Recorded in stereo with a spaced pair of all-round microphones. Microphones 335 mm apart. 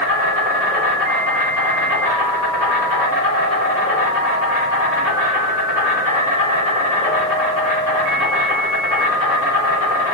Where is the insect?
45° left (ahead or behind), 1.7 m.